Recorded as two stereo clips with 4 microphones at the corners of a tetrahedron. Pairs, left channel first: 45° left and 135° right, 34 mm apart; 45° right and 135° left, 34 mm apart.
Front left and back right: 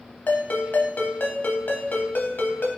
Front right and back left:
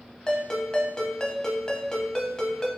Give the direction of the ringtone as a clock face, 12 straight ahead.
11 o'clock.